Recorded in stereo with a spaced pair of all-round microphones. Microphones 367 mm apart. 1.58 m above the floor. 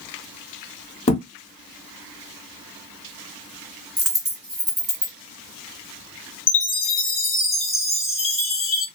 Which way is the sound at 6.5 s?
35° left (ahead or behind).